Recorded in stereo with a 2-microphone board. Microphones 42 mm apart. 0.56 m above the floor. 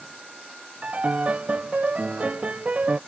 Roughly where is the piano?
Right.